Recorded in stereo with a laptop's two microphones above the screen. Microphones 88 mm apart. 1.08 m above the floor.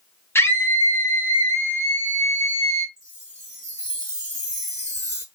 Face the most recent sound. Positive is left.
turn(degrees=-35)  # may be behind; listen again after turning